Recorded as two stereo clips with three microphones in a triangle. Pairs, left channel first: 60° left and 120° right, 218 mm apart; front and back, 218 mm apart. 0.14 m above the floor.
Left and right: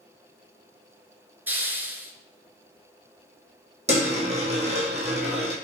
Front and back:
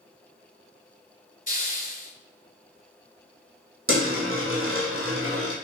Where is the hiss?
40° right, 0.5 m.